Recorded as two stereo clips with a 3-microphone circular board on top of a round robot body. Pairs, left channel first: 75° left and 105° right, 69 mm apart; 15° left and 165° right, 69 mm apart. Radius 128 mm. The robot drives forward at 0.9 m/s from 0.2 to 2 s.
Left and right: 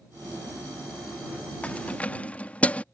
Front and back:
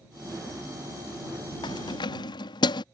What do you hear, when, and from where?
1.6 s keys jangling: 5° left